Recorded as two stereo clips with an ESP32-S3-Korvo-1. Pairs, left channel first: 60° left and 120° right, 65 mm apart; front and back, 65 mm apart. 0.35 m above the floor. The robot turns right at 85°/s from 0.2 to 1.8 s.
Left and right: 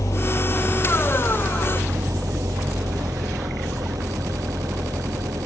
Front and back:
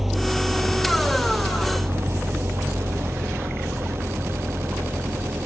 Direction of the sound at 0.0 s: 95° left.